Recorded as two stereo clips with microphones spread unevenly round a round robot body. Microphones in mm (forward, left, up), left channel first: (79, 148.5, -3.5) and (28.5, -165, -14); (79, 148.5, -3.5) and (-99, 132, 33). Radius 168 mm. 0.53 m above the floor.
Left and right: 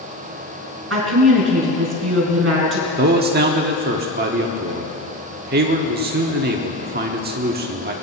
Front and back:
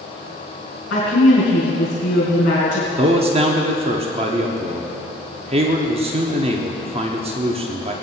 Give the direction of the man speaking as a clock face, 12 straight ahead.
4 o'clock.